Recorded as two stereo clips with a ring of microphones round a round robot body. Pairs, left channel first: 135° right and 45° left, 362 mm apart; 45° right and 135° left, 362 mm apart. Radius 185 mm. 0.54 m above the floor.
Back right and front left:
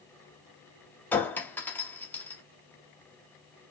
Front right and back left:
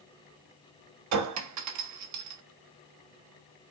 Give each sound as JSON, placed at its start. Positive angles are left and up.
{"t": 1.1, "sound": "a clink", "azimuth_deg": 140, "distance_m": 0.7}